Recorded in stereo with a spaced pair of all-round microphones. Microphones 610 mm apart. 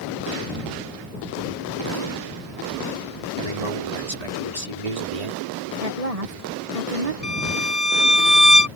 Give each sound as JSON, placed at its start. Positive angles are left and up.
{"t": 3.4, "sound": "a man speaking", "side_deg": -90}
{"t": 5.8, "sound": "a woman speaking", "side_deg": -65}
{"t": 7.2, "sound": "a violin", "side_deg": -70}